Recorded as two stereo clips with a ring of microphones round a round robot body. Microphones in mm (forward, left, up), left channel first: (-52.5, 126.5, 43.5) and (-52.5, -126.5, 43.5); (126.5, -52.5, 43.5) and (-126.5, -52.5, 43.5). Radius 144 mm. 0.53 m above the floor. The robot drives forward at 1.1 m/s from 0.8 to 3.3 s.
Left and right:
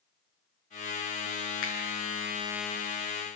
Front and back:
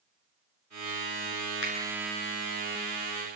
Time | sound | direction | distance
1.6 | a finger snap | 50° left | 7.5 m